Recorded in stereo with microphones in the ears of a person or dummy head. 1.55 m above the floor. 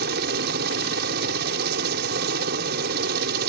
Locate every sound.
0.0 s a helicopter: 55° right (ahead or behind)